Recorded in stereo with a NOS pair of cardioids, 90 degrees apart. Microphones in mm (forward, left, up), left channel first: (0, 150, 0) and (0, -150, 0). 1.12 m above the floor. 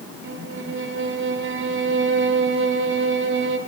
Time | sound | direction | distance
0.2 | a violin | 40° right | 3.5 m